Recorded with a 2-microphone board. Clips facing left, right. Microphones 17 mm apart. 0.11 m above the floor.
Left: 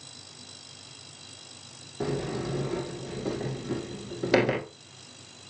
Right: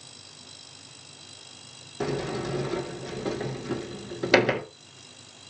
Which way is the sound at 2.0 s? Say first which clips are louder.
Right 1 dB; 35° right (ahead or behind).